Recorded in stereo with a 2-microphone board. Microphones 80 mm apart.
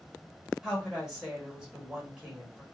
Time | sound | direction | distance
0.6 | a woman speaking | 5° right (ahead or behind) | 1.0 m